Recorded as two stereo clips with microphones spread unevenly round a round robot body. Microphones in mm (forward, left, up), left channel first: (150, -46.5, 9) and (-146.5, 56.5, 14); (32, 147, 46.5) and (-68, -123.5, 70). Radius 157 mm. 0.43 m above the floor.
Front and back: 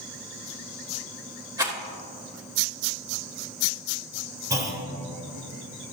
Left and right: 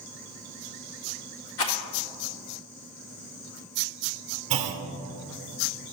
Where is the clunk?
120° right, 1.2 m.